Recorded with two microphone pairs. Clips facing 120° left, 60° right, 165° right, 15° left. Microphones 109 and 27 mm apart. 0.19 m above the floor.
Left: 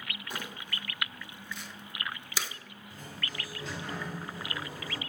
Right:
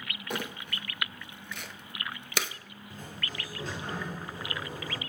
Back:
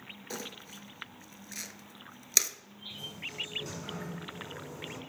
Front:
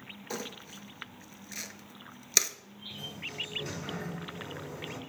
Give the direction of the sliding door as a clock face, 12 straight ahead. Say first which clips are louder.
Right 1 dB, front 1 dB; 2 o'clock.